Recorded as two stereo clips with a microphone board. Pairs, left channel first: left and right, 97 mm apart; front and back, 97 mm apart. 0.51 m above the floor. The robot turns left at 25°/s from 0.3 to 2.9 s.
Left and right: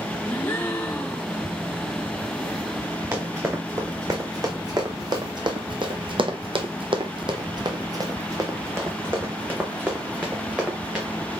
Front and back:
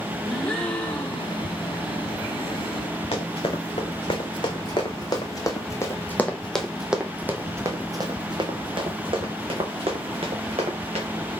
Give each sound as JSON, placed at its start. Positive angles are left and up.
{"t": 0.3, "sound": "a gasp", "azimuth_deg": 65, "distance_m": 1.1}
{"t": 3.1, "sound": "running footsteps", "azimuth_deg": -30, "distance_m": 2.0}